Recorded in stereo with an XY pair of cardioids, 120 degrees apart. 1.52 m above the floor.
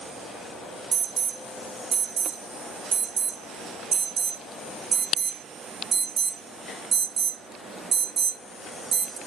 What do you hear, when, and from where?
0.9 s an alarm: 50° right, 1.4 m